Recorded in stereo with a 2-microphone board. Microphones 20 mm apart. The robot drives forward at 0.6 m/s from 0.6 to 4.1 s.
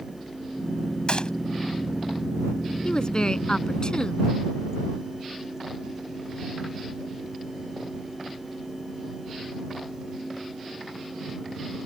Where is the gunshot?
55° left (ahead or behind).